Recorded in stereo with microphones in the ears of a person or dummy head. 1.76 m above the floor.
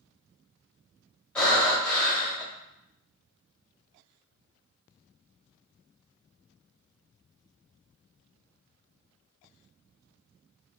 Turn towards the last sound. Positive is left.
turn(degrees=5)  # may be behind; listen again after turning